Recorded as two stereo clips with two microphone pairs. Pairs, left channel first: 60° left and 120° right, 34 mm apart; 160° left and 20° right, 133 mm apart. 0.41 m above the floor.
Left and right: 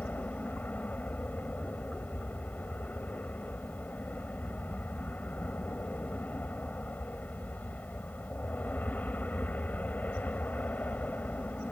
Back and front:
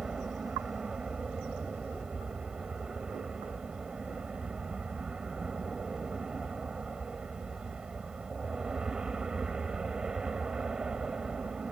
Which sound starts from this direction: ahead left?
An aircraft, at 0.0 s.